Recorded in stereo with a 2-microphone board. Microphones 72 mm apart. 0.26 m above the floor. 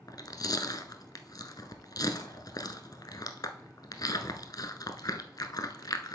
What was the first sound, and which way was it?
Chewing, 65° left (ahead or behind).